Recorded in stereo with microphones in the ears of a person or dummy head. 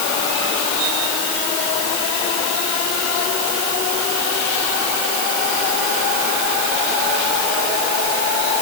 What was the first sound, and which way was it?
Only background noise.